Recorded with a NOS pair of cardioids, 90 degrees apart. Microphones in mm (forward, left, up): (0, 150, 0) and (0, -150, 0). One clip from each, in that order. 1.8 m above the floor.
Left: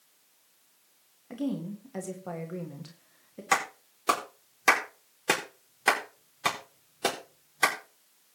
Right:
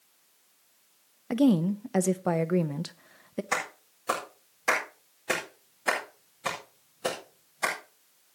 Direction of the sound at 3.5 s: 65° left.